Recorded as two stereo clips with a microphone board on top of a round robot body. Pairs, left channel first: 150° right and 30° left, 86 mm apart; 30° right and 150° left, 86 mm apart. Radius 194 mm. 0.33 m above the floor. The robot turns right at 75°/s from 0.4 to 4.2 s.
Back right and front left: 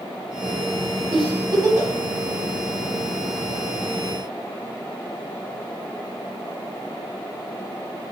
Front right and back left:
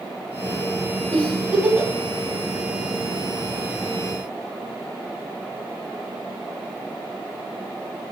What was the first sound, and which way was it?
A giggle, 35° left.